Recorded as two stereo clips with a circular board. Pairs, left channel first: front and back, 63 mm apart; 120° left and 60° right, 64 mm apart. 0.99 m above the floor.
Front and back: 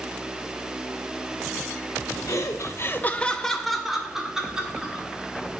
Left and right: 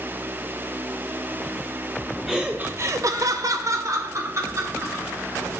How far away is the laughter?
About 0.7 m.